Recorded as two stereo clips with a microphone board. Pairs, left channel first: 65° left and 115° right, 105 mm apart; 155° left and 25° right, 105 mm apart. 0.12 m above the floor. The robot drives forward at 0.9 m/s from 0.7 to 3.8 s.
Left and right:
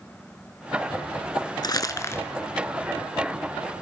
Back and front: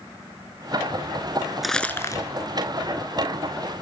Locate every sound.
1.6 s crumpling: 65° left, 0.7 m; by 2.2 s 125° left, 0.8 m